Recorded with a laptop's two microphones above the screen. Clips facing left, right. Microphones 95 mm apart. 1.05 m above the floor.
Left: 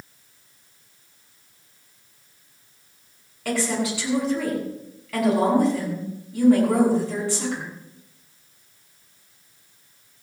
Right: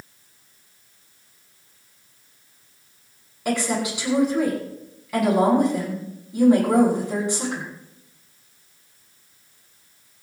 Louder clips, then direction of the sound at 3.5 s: Right 1 dB; 20° right (ahead or behind).